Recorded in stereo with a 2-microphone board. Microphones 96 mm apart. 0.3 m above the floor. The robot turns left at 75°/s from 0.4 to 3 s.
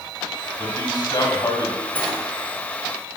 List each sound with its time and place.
0.6 s a man speaking: 130° left, 2.5 m; by 1.8 s 45° left, 2.5 m
1.9 s a sliding door: 20° left (ahead or behind), 1.5 m; by 2.1 s 15° left (ahead or behind), 1.5 m